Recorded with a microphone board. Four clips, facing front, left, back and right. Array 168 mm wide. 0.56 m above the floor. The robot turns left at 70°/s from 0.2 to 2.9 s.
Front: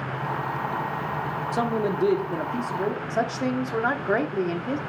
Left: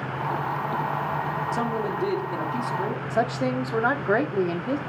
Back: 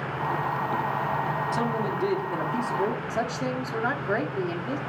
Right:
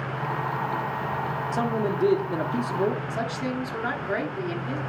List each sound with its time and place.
1.5 s a man speaking: 5° right, 1.0 m; by 3.0 s 100° right, 1.0 m
3.1 s a woman speaking: 70° left, 0.8 m